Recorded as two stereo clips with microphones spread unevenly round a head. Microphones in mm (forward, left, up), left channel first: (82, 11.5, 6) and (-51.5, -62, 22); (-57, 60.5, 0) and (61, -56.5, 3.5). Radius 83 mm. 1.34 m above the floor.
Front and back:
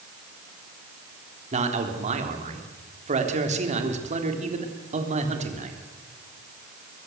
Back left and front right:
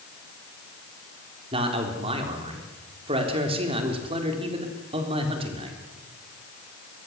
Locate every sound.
1.5 s a man speaking: 105° right, 3.5 m